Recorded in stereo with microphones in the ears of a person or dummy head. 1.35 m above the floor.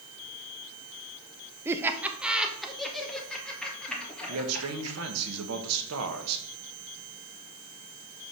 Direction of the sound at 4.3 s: 85° right.